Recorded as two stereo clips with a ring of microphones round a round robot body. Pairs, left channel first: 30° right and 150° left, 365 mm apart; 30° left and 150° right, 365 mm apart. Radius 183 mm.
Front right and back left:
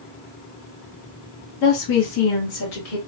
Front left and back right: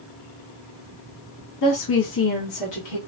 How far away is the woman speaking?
About 0.8 m.